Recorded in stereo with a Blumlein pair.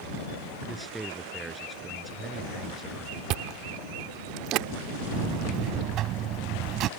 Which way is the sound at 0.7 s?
5° right.